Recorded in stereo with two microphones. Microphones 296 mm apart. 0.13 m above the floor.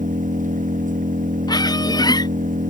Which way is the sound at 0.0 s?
25° right (ahead or behind).